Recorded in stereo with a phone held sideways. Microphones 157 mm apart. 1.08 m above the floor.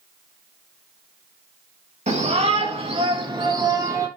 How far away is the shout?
About 3.5 m.